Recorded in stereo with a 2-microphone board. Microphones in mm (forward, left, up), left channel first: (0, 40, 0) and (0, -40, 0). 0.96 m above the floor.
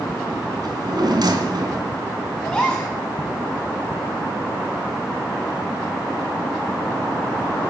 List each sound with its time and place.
0.6 s a drawer: 60° right (ahead or behind), 3 m
2.4 s a gasp: 10° left (ahead or behind), 7.5 m